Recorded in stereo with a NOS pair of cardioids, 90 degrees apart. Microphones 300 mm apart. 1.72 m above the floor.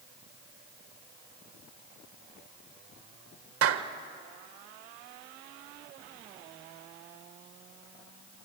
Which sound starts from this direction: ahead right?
A clap, at 3.6 s.